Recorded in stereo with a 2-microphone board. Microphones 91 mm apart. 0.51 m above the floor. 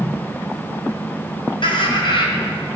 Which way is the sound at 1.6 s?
70° left (ahead or behind).